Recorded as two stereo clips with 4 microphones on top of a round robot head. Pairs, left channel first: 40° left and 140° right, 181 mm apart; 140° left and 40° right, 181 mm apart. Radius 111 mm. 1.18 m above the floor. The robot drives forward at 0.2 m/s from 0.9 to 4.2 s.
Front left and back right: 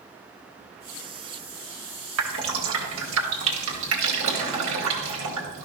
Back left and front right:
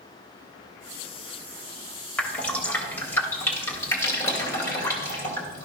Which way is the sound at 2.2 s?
135° right.